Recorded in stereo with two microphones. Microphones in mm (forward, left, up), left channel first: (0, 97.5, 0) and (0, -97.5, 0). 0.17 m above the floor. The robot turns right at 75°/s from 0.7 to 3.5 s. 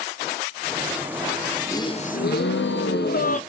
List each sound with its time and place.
1.7 s a gasp: 15° left, 0.6 m; by 3.4 s 140° left, 0.6 m